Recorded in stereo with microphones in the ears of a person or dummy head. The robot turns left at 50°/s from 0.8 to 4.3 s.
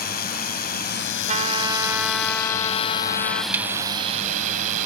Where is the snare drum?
10° right (ahead or behind); by 3.7 s 20° right (ahead or behind).